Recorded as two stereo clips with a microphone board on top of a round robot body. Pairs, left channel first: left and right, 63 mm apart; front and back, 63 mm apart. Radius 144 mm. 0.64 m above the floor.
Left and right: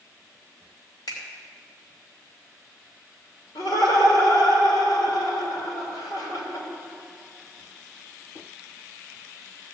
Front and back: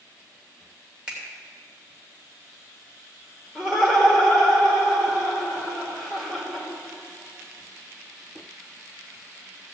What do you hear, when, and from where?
1.1 s a finger snap: 100° left, 3 m
3.5 s laughter: 80° left, 3 m